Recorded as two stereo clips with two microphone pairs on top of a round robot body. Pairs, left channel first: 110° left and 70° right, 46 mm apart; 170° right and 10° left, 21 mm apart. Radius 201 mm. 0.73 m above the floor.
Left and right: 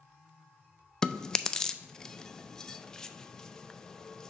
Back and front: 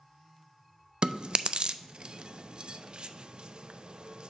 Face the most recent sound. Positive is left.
turn(degrees=25)